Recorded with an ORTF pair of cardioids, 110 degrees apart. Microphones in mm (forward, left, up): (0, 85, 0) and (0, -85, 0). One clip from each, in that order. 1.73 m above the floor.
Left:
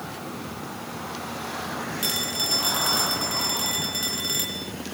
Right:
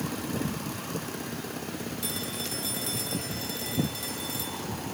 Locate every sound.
2.0 s a phone ringing: 55° left, 3.5 m